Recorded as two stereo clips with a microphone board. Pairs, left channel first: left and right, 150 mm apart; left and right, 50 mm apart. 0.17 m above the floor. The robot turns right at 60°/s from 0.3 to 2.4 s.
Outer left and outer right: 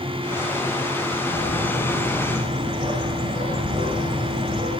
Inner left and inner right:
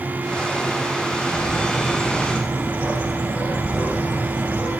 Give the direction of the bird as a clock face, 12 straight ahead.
3 o'clock.